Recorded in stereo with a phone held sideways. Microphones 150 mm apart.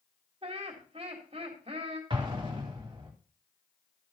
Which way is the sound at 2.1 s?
35° right (ahead or behind).